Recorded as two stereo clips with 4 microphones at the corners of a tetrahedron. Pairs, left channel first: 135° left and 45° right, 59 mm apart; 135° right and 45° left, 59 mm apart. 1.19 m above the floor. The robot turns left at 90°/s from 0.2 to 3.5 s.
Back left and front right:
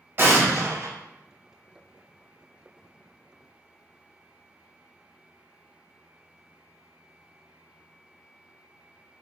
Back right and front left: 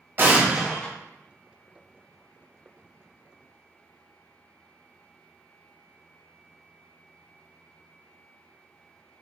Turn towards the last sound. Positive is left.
turn(degrees=60)